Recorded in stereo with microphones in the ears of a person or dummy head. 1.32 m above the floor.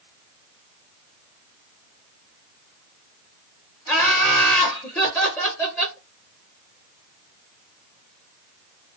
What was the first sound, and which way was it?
Laughter, 15° left (ahead or behind).